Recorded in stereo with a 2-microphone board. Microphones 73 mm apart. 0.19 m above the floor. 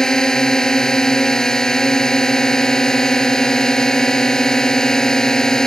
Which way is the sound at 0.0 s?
10° left (ahead or behind).